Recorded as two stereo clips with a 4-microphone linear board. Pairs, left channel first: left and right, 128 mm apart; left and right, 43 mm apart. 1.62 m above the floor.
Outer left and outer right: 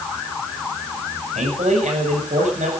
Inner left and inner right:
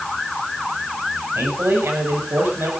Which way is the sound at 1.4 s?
70° right (ahead or behind).